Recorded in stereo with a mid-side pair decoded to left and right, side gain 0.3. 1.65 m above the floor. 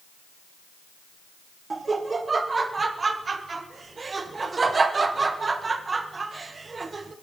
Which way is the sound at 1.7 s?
45° right.